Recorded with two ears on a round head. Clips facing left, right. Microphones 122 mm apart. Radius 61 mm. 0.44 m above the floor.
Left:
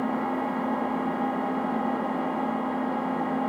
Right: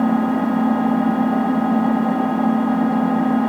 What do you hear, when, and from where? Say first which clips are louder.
0.0 s an engine running: right 10 dB; 80° right, 1.0 m